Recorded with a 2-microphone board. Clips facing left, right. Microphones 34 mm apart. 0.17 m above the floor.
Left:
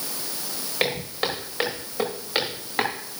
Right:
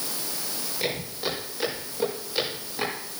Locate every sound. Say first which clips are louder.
0.8 s footsteps: left 5 dB; 65° left (ahead or behind), 8 m; by 2.9 s 60° left (ahead or behind), 9.5 m